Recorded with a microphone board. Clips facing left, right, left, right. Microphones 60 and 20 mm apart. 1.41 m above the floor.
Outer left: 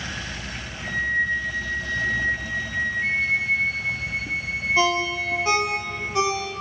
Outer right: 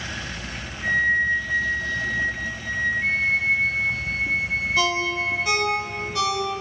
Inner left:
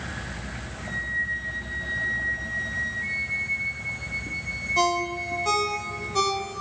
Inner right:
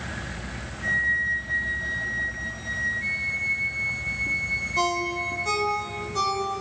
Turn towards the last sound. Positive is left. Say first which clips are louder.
# outer left 2 dB, inner left 3 dB
turn(degrees=25)  # may be behind; listen again after turning